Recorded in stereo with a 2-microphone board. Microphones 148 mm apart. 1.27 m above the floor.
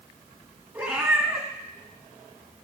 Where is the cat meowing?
10° right (ahead or behind), 2.0 m.